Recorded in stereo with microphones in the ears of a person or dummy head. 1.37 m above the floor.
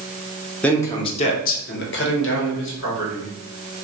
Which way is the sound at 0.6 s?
5° left (ahead or behind).